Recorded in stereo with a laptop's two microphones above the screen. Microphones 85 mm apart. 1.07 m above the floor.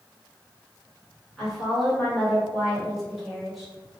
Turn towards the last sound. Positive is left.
turn(degrees=0)  # may be behind; listen again after turning